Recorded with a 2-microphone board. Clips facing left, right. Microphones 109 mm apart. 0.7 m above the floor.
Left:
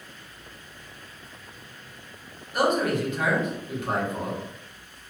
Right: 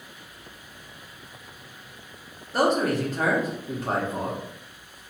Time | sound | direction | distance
2.5 | a man speaking | 35° right (ahead or behind) | 1.0 m